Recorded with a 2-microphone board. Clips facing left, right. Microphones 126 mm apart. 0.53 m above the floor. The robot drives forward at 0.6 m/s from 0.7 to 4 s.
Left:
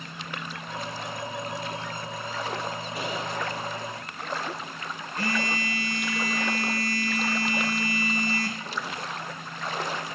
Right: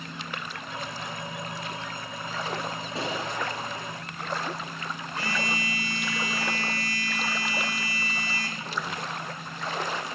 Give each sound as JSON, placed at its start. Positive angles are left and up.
{"t": 3.0, "sound": "a gunshot", "side_deg": -25, "distance_m": 2.5}
{"t": 5.2, "sound": "a phone buzzing", "side_deg": 50, "distance_m": 1.3}